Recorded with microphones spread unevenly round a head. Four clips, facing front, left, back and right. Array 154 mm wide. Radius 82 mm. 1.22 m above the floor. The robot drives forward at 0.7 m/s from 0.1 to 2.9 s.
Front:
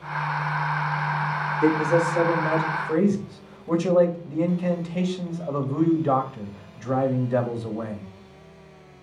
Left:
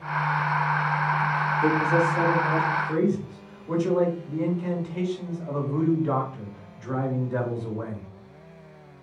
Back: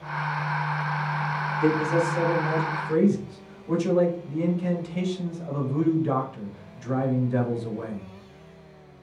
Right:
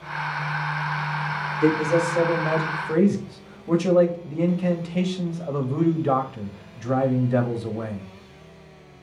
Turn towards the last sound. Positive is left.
turn(degrees=-55)